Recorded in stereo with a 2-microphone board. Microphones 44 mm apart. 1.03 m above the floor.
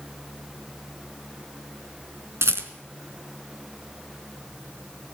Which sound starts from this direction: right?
A rattle, at 2.4 s.